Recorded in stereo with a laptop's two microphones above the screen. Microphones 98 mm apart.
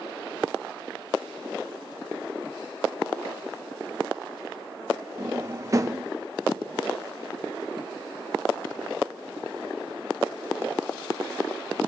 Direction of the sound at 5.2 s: 35° right (ahead or behind).